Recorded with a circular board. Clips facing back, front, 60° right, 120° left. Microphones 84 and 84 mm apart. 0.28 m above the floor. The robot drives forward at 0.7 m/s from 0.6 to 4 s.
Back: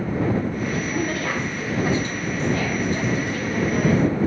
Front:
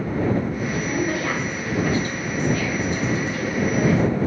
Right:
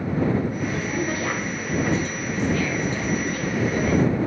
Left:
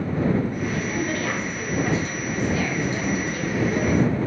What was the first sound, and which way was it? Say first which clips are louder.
A woman speaking: front 1 dB, even; 25° right.